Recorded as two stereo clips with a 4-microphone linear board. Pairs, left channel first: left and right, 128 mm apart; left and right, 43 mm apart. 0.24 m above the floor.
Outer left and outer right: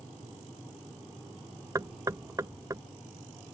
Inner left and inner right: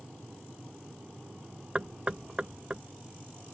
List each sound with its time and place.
1.8 s knocking: 25° right (ahead or behind)